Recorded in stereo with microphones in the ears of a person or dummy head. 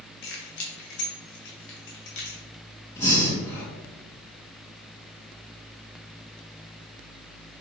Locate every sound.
0.2 s keys jangling: 60° left (ahead or behind), 0.9 m
3.0 s breathing: 15° left (ahead or behind), 1.3 m